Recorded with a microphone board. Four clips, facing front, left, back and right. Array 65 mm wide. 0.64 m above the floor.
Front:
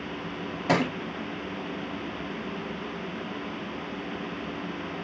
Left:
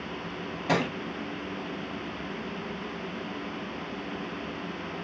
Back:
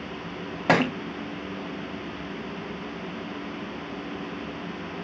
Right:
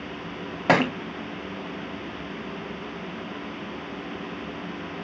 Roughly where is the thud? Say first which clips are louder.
Right 7 dB, back 3 dB; behind right.